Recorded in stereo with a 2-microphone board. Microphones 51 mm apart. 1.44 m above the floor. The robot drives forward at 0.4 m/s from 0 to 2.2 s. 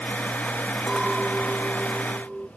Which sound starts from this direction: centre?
A clink, at 0.9 s.